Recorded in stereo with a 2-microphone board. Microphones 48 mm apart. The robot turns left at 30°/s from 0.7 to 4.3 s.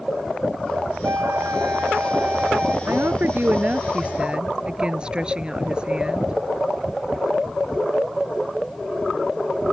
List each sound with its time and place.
1.0 s a flute: 100° right; by 2.8 s 155° right
2.9 s a woman speaking: 115° right; by 6.3 s 155° right